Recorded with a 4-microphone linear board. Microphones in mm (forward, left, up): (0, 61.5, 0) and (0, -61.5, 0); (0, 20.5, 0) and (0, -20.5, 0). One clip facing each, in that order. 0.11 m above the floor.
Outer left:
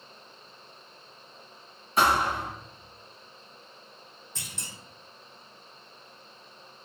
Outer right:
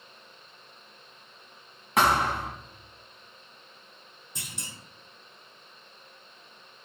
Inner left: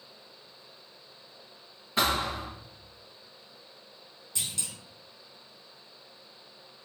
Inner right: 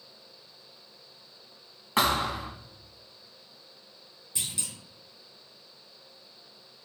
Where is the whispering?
I don't hear whispering.